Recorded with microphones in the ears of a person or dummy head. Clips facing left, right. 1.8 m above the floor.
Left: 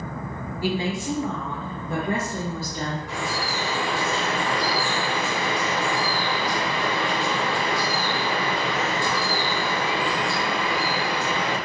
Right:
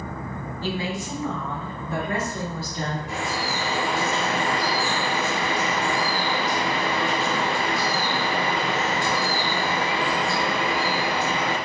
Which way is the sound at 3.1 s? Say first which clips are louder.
Right 1 dB; 20° right (ahead or behind).